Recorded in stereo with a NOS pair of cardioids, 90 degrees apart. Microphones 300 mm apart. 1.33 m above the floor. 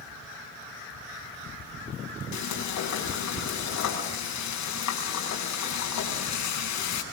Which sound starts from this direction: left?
Frying, at 2.3 s.